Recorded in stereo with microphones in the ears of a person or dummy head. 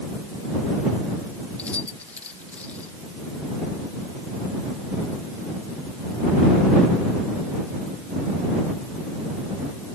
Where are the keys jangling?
10° left (ahead or behind).